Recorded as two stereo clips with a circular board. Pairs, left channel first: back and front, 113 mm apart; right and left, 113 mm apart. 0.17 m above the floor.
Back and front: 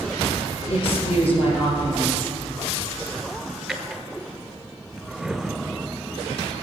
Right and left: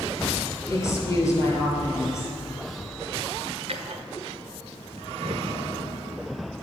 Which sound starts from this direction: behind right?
A woman speaking, at 0.7 s.